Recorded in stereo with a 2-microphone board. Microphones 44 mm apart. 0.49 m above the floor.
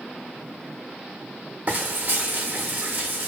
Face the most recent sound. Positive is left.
turn(degrees=-40)  # may be behind; listen again after turning